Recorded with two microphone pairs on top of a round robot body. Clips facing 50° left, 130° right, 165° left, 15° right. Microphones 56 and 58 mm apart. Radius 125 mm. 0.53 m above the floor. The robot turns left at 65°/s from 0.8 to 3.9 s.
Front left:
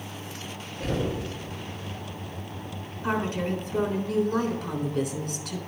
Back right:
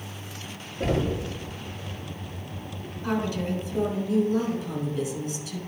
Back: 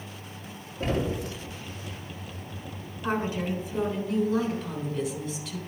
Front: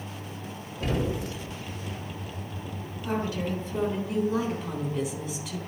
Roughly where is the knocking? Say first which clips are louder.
Back right 3 dB, back 1 dB; behind right.